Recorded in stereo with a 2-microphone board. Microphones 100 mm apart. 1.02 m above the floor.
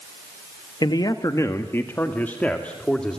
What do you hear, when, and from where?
0.8 s a man speaking: 45° left (ahead or behind), 1.3 m; by 3.2 s 5° left (ahead or behind), 2.5 m